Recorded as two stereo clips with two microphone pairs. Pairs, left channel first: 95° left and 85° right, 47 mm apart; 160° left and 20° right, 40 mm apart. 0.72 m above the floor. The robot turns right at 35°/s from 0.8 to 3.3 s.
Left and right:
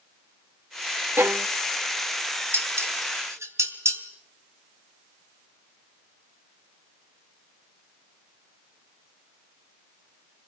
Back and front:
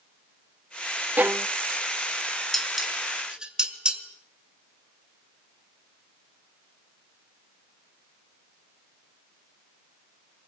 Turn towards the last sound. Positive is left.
turn(degrees=-90)